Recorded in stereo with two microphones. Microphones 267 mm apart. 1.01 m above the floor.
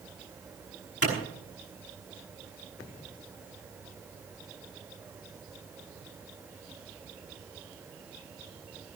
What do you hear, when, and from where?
1.0 s a clap: 55° left (ahead or behind), 5.5 m